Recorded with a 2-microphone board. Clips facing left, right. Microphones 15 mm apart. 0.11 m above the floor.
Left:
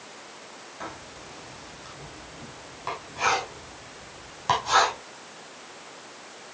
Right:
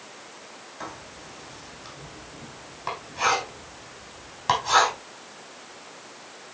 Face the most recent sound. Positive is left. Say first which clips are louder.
# even
turn(degrees=-5)  # may be behind; listen again after turning